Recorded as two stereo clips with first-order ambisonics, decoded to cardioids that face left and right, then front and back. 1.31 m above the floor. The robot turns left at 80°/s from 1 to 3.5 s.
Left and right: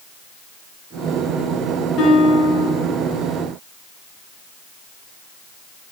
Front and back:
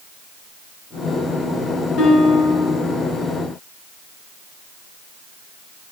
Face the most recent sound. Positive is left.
turn(degrees=-75)